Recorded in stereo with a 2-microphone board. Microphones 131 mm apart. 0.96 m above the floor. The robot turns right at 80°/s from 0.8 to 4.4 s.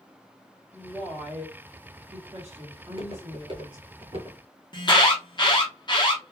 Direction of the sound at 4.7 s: 35° left (ahead or behind).